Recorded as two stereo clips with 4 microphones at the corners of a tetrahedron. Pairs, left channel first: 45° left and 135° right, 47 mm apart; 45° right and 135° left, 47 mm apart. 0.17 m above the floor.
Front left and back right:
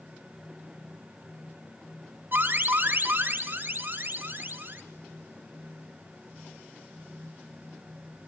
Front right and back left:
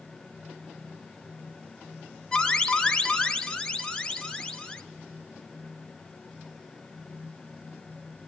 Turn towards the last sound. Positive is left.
turn(degrees=-115)